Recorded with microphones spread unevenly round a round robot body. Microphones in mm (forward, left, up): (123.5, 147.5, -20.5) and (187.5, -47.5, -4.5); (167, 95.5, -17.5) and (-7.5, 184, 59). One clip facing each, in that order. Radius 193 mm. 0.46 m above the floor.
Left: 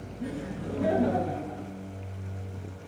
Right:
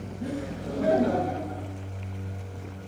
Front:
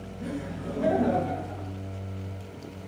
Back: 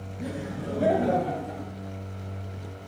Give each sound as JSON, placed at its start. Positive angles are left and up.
{"t": 0.2, "sound": "laughter", "azimuth_deg": 150, "distance_m": 4.0}